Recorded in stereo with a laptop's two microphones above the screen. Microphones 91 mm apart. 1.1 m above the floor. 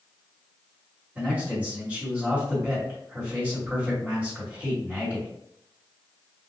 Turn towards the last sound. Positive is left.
turn(degrees=-20)  # may be behind; listen again after turning